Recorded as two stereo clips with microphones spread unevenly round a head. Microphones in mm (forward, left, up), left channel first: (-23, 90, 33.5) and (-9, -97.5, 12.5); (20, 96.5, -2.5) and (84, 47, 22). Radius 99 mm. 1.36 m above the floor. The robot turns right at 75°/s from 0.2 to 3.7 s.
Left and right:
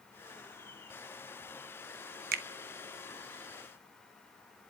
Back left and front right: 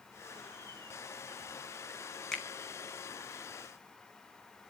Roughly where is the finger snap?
Right.